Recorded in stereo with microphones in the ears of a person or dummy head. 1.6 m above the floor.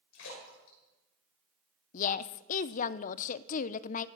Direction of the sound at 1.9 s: 45° left (ahead or behind).